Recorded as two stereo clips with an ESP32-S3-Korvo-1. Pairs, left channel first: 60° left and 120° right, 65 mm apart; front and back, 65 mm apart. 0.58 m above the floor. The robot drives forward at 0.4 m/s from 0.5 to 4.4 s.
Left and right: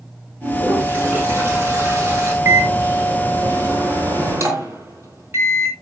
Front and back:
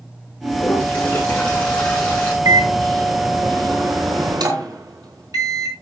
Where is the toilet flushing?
65° right, 6.5 m; by 2.4 s 70° right, 6 m.